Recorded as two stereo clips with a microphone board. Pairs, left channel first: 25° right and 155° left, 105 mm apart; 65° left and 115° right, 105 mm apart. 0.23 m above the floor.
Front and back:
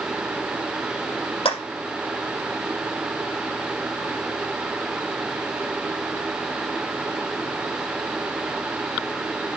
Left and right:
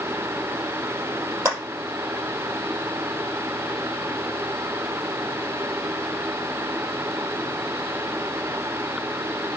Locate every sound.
1.4 s a clap: 45° right, 5.5 m